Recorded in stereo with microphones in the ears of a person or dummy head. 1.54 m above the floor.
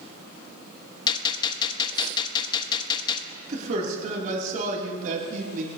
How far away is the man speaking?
About 2.5 m.